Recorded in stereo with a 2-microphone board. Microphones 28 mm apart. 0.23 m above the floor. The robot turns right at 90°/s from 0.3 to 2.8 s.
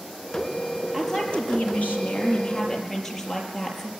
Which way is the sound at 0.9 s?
Straight ahead.